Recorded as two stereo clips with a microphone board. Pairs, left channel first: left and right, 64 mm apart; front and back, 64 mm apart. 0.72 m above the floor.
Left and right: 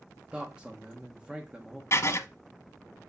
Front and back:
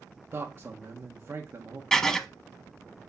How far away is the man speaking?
About 1.3 m.